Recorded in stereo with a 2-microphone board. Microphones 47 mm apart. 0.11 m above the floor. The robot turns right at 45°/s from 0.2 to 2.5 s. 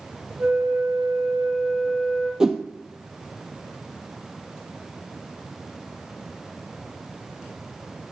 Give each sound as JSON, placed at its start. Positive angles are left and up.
{"t": 0.4, "sound": "a flute", "azimuth_deg": -35, "distance_m": 4.0}
{"t": 2.4, "sound": "a whoosh", "side_deg": -15, "distance_m": 0.6}